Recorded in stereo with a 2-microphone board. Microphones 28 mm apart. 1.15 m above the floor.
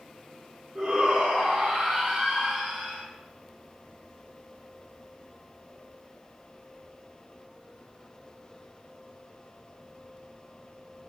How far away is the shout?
About 3.5 m.